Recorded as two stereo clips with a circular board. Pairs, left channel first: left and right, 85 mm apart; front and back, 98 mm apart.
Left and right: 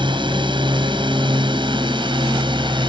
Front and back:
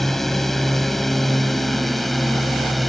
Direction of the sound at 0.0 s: 90° right.